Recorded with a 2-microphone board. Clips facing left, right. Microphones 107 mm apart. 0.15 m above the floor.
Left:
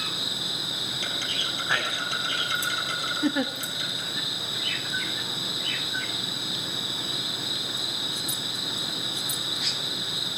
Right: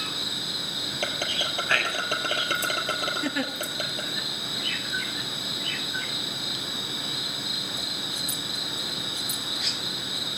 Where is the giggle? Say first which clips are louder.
Left 7 dB; 15° left (ahead or behind), 0.8 m.